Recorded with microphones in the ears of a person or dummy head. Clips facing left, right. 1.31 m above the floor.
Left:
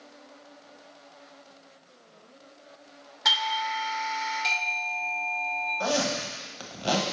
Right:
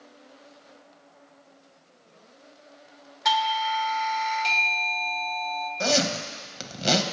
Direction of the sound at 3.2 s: 10° left (ahead or behind).